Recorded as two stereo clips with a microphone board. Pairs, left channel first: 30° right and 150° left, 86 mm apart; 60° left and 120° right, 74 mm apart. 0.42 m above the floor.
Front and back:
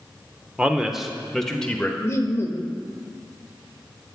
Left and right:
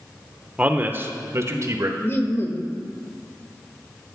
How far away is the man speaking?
About 0.8 m.